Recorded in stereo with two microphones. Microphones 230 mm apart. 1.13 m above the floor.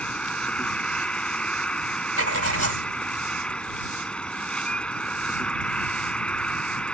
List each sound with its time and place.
0.0 s an insect: 5° left (ahead or behind)
2.2 s writing: 85° right